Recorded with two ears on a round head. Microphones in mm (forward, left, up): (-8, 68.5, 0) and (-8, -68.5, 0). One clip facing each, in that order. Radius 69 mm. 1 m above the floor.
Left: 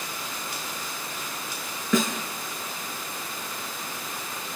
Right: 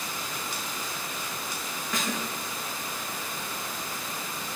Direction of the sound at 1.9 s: 75° left (ahead or behind).